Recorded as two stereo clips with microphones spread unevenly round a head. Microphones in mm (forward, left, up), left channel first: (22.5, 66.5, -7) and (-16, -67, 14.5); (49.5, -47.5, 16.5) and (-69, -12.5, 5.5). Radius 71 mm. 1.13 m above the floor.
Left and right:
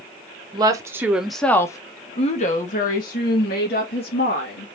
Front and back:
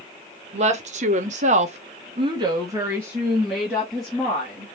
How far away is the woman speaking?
About 1.3 m.